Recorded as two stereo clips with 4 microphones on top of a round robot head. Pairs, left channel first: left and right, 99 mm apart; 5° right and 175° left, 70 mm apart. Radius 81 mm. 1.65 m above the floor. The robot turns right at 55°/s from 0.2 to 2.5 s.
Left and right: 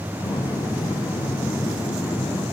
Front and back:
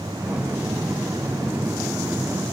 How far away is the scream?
No scream in this recording.